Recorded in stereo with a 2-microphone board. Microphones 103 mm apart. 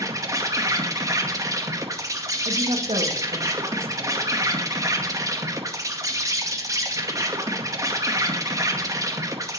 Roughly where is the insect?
Right.